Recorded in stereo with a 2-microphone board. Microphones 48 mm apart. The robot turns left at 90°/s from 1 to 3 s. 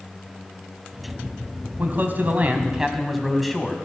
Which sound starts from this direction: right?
A man speaking, at 1.8 s.